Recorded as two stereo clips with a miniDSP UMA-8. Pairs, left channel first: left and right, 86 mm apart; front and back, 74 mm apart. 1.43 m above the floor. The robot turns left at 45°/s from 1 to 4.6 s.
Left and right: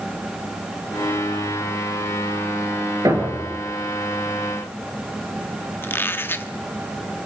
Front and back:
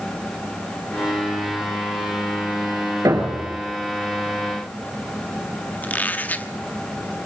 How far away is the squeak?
About 1.0 m.